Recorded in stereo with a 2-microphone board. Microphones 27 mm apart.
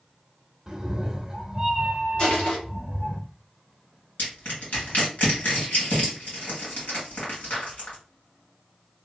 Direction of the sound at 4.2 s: 75° left (ahead or behind).